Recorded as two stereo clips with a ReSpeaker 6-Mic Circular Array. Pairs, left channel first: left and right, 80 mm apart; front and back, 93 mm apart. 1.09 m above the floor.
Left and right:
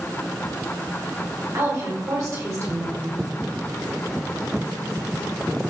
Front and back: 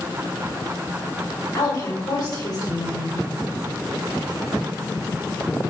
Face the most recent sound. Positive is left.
turn(degrees=-45)